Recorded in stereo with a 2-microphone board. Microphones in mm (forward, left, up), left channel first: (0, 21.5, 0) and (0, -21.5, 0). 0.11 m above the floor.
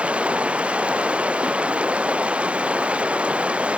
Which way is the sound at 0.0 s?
25° right (ahead or behind).